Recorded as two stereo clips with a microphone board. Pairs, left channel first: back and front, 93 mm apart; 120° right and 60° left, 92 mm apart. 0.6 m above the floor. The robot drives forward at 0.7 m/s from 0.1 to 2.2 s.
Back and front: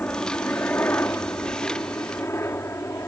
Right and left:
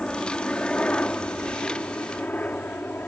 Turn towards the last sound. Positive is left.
turn(degrees=-170)